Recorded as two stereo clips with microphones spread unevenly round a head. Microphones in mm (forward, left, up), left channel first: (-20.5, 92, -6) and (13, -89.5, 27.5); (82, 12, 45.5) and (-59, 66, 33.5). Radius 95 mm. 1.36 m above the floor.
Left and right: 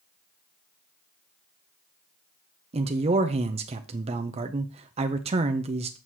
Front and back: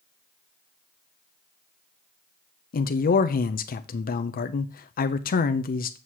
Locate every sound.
2.7 s a man speaking: 20° right, 0.5 m